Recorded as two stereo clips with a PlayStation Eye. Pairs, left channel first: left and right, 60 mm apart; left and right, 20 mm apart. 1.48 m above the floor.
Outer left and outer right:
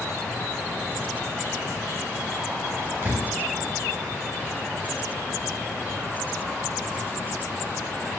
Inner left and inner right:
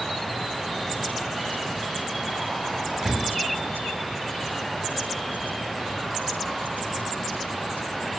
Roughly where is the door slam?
Right.